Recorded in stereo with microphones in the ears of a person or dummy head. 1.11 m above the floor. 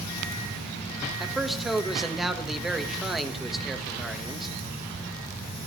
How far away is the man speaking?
About 1.4 m.